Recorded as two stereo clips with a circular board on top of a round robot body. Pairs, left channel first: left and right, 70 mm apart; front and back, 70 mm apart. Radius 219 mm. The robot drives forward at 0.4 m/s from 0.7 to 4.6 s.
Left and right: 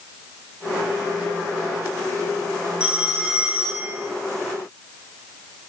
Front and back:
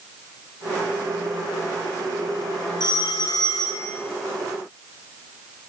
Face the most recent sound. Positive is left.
turn(degrees=-15)